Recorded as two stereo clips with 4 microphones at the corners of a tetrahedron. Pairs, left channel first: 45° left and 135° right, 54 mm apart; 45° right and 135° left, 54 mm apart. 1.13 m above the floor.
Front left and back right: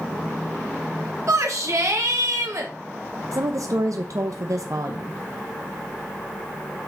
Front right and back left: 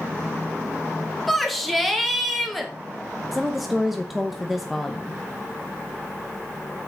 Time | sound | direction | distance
1.3 | a shout | 135° right | 1.9 m
3.3 | a woman speaking | 140° right | 0.9 m